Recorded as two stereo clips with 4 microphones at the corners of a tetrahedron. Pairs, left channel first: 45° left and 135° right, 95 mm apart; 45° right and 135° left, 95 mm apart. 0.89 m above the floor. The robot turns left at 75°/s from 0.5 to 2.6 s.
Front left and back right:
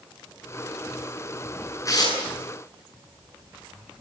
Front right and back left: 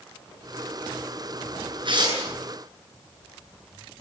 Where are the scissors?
No scissors in this recording.